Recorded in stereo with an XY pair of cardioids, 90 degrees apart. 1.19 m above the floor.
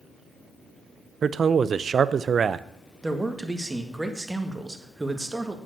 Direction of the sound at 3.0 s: 20° right.